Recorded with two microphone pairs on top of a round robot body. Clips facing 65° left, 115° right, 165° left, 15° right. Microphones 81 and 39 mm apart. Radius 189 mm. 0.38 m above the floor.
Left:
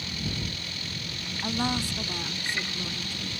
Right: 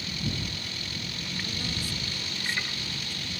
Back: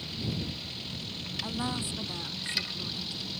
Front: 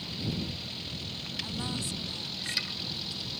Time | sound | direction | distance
1.4 | a woman speaking | 90° left | ?